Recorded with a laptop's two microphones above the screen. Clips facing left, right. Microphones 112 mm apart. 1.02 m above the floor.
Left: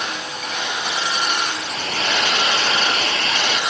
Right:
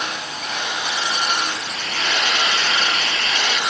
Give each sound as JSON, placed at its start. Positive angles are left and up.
{"t": 1.6, "sound": "a hair dryer", "side_deg": 40}